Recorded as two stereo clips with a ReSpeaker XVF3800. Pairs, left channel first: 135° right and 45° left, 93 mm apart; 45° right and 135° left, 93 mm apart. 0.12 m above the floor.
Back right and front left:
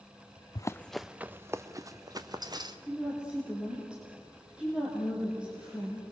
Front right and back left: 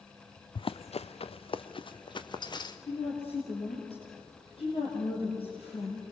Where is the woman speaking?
35° right, 5 m.